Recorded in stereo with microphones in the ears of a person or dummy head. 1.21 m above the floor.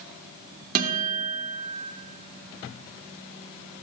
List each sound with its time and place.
0.8 s a guitar: 55° right (ahead or behind), 1.3 m